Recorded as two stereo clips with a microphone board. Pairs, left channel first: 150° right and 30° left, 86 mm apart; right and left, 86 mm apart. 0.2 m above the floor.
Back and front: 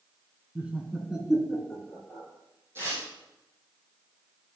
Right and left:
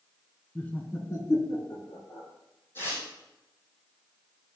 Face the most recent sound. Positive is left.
turn(degrees=-30)